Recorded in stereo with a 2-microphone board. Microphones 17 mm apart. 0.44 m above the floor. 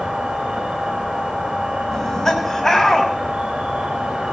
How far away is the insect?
About 6 m.